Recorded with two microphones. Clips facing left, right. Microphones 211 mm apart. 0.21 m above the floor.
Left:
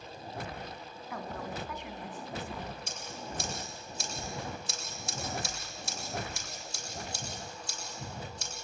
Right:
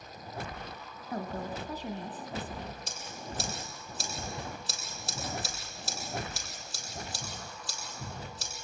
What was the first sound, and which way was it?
A woman speaking, 35° right (ahead or behind).